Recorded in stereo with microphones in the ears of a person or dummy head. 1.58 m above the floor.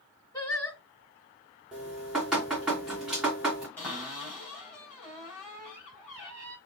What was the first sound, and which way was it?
Singing, 20° left (ahead or behind).